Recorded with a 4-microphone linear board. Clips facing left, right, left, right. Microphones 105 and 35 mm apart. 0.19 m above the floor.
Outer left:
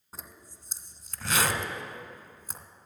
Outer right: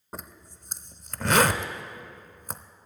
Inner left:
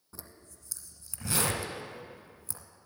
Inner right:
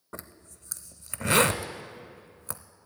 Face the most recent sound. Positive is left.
turn(degrees=-55)  # may be behind; listen again after turning